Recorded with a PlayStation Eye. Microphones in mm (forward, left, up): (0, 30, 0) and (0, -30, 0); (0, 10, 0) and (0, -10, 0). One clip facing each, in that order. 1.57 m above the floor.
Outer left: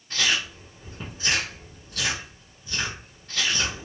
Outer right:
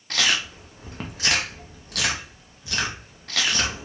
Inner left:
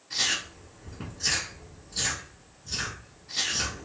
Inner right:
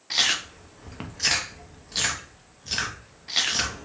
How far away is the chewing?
About 0.5 m.